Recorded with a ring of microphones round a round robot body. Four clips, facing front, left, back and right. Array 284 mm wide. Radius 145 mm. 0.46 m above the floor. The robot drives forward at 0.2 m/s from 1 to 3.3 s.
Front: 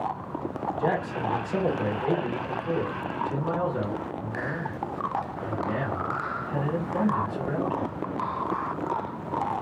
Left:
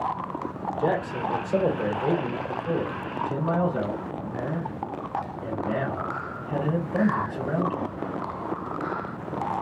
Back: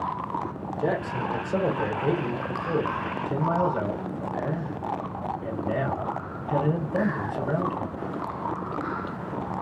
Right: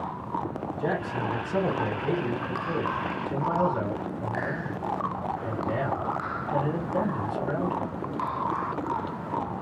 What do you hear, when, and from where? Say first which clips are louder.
0.8 s a man speaking: left 4 dB, back 1 dB; 120° left, 1.7 m; by 8.1 s 135° left, 1.9 m